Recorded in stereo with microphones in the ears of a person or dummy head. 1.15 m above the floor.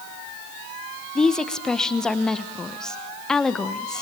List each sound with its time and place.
1.1 s a woman speaking: 5° left (ahead or behind), 0.9 m